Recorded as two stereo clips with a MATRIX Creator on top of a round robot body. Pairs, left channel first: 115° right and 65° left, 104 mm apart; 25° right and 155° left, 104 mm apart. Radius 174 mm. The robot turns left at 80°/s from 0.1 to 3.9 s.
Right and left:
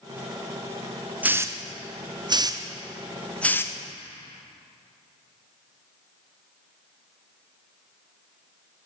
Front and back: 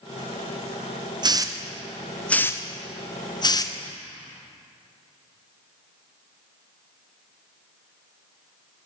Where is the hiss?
135° left, 0.6 m; by 3.8 s 65° right, 0.6 m.